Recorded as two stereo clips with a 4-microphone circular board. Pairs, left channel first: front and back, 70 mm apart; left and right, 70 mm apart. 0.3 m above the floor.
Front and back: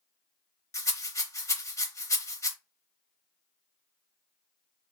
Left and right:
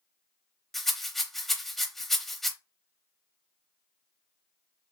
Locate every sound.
0.7 s a rattle: 5° left, 0.8 m